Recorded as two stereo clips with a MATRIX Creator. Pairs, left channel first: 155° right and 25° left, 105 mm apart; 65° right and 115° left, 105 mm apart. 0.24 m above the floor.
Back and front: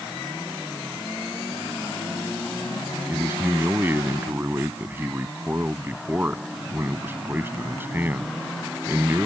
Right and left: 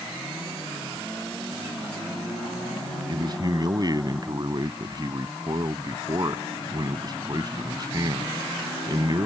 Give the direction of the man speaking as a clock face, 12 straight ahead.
9 o'clock.